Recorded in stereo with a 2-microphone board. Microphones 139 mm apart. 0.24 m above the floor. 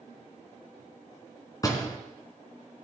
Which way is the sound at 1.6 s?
25° left (ahead or behind).